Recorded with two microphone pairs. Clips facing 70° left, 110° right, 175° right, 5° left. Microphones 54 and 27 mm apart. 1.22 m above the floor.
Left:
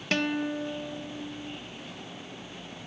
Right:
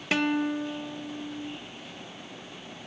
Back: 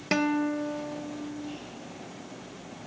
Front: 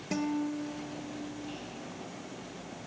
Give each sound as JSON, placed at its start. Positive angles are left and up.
{"t": 0.1, "sound": "a guitar", "azimuth_deg": 170, "distance_m": 0.7}